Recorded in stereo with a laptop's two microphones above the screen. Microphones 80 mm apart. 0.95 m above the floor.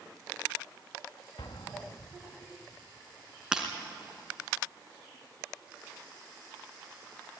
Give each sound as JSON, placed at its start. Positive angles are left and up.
{"t": 1.4, "sound": "an explosion", "side_deg": 75, "distance_m": 1.0}
{"t": 3.5, "sound": "breaking glass", "side_deg": -10, "distance_m": 2.5}